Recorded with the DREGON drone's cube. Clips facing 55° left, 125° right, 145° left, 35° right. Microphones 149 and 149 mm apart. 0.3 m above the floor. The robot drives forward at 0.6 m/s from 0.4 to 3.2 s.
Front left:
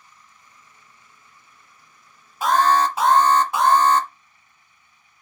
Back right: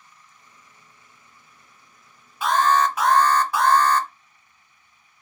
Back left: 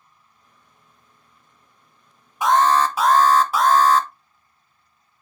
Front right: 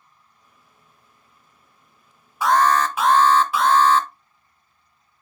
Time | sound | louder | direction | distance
2.4 | an alarm | front left 2 dB, back left 1 dB | 80° left | 1.0 m